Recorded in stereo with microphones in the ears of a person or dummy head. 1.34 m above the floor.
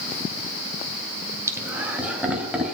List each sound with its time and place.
1.5 s laughter: 20° right (ahead or behind), 2 m; by 2.7 s 10° right (ahead or behind), 3.5 m